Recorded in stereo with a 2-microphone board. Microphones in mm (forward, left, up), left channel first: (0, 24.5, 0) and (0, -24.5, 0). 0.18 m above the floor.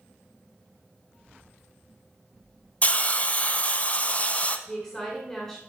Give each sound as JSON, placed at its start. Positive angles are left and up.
{"t": 2.8, "sound": "a hiss", "side_deg": 30, "distance_m": 0.5}
{"t": 4.7, "sound": "a woman speaking", "side_deg": 10, "distance_m": 1.5}